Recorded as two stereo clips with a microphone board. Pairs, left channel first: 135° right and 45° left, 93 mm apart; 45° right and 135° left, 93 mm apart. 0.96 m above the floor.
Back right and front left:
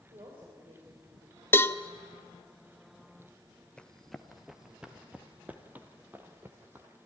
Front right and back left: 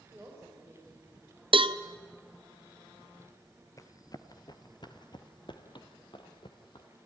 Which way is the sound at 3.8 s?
60° right.